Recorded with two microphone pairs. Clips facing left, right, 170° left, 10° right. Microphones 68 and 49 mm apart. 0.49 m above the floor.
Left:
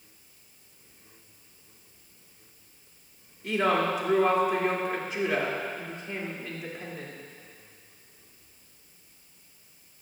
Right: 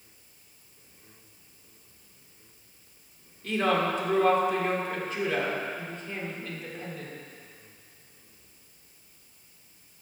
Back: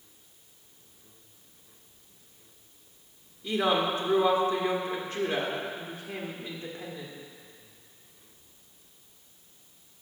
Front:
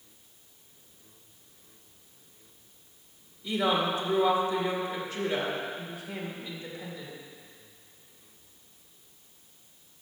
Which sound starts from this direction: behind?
A woman speaking, at 3.4 s.